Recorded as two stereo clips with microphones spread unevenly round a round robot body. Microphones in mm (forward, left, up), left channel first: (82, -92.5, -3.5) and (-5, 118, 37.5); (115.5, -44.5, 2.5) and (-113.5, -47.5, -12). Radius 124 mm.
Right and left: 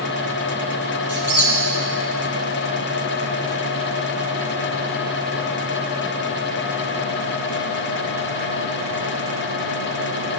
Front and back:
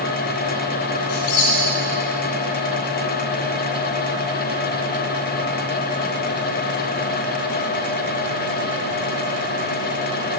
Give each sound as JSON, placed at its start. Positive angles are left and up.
{"t": 1.1, "sound": "a squeak", "azimuth_deg": 35, "distance_m": 5.5}